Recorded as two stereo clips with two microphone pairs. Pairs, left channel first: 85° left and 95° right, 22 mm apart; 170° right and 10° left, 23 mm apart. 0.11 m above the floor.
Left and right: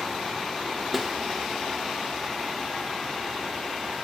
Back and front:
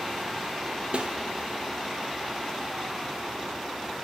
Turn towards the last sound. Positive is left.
turn(degrees=-15)